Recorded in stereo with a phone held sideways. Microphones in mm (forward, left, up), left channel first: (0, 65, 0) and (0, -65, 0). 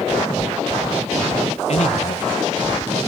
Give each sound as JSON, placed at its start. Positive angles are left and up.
{"t": 1.7, "sound": "a man speaking", "side_deg": 55, "distance_m": 1.8}